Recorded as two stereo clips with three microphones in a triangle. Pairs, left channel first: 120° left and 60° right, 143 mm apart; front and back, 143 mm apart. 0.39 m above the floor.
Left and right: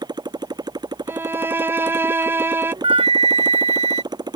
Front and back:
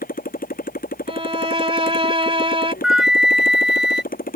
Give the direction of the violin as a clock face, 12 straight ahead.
4 o'clock.